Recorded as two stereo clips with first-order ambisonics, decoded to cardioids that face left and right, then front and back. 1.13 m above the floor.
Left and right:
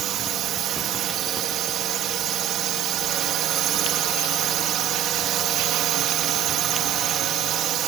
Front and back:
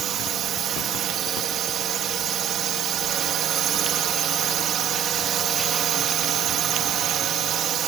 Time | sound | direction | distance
0.0 | a drone | 130° right | ?